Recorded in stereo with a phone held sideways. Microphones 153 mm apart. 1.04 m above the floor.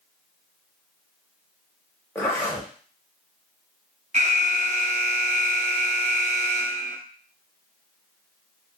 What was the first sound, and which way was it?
A zipper, 15° left (ahead or behind).